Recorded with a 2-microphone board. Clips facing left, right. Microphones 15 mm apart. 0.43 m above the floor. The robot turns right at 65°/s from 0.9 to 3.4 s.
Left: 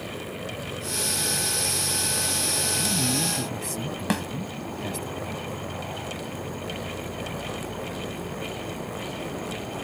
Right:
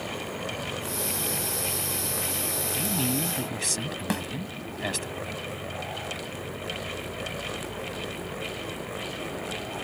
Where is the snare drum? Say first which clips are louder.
Left 3 dB; 20° left (ahead or behind).